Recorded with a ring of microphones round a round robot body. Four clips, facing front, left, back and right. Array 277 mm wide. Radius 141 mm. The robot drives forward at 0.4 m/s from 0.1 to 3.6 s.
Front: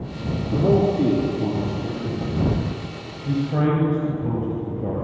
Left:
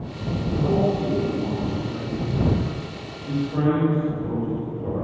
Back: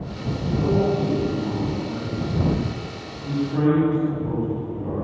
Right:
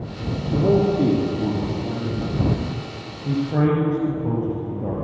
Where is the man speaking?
65° right, 9.5 m; by 4.9 s 70° right, 9 m.